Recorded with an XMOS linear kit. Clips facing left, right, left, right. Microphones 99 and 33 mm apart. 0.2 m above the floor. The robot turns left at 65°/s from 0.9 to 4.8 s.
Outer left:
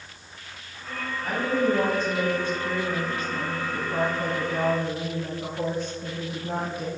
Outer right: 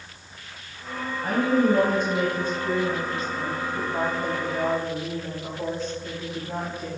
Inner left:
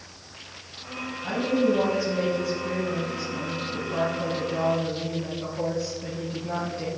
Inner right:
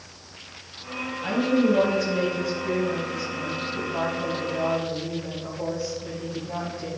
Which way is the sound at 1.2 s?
55° right.